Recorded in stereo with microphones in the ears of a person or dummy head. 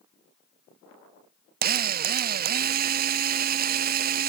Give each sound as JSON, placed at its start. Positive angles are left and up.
{"t": 1.6, "sound": "a drill", "side_deg": -45}